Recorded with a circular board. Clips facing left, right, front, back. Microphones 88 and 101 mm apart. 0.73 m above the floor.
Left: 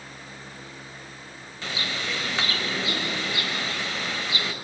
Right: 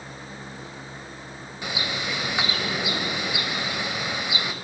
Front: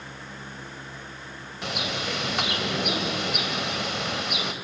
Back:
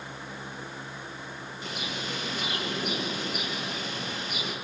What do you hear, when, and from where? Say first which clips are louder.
1.6 s a bird: right 1 dB, front 6 dB; 15° right, 2.5 m